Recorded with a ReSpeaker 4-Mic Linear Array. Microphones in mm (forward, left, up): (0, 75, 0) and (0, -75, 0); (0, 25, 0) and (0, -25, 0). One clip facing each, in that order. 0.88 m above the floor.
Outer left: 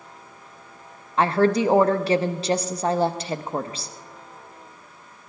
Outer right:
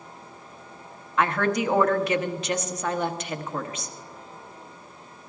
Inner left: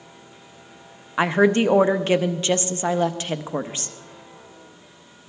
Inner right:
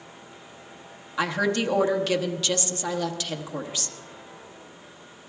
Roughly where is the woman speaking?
Left.